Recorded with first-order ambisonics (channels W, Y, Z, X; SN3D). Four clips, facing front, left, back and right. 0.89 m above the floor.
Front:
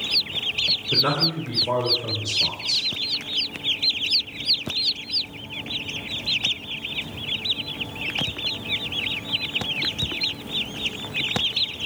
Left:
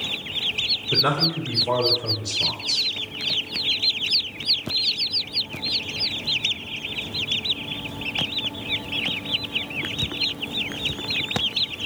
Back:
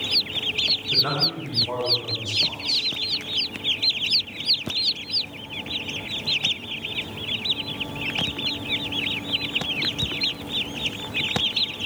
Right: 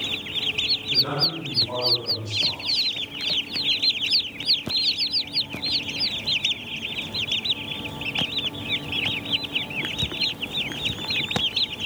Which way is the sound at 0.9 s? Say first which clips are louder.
Left 4 dB, front 1 dB; 45° left.